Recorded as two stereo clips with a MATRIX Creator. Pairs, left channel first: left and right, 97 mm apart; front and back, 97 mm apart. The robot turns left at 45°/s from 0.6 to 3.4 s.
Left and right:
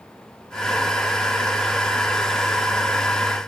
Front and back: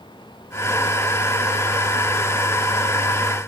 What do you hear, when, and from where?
Only background noise.